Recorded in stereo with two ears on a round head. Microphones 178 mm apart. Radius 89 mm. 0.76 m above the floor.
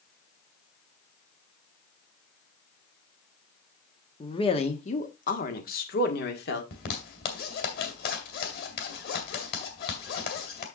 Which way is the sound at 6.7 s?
55° left (ahead or behind).